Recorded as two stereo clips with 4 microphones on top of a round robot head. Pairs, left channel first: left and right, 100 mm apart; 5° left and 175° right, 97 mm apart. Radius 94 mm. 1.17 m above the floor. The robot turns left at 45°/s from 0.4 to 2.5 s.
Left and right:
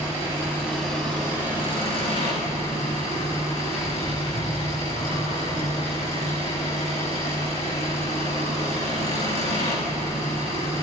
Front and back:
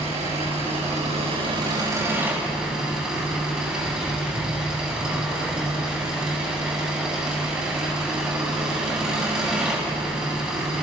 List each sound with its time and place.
0.0 s an engine running: 160° right, 8 m; by 10.8 s 105° left, 8 m